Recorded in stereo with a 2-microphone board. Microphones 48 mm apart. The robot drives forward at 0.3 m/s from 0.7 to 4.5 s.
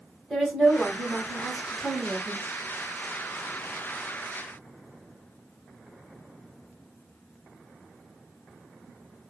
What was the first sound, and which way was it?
A woman speaking, centre (ahead or behind).